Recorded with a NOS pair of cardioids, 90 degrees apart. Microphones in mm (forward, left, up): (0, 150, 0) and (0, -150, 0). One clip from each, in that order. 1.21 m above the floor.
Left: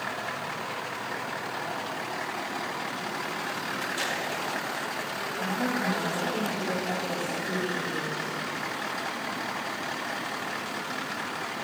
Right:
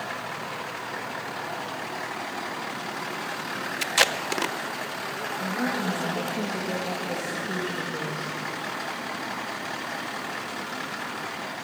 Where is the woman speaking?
10° right, 1.7 m.